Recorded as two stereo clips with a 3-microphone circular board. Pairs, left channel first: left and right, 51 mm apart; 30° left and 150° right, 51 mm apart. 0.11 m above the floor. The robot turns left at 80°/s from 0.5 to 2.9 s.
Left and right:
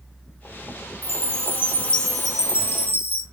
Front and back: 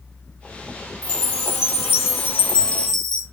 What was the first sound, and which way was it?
A chime, 95° left.